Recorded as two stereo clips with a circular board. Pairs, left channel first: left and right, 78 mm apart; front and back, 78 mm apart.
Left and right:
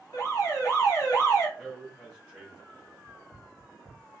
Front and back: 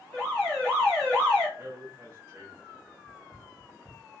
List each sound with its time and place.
0.1 s an alarm: 90° left, 2.5 m
1.6 s a man speaking: 165° left, 1.4 m
3.0 s running footsteps: 150° left, 1.4 m